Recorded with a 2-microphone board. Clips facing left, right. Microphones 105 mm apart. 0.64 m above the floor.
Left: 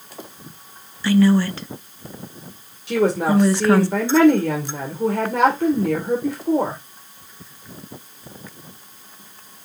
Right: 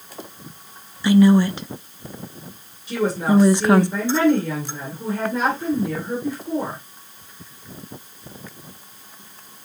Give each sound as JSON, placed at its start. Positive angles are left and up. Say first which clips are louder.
{"t": 1.0, "sound": "a woman speaking", "louder": "right 2 dB", "side_deg": -15, "distance_m": 0.6}
{"t": 2.9, "sound": "a woman speaking", "louder": "left 2 dB", "side_deg": 70, "distance_m": 2.0}